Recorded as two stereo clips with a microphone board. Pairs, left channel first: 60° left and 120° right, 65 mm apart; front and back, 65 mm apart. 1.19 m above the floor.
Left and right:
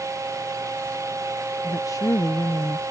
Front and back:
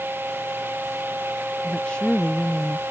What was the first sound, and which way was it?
A woman speaking, 70° left.